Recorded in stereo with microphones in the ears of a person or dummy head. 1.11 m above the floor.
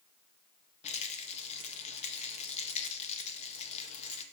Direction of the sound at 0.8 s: 40° left (ahead or behind).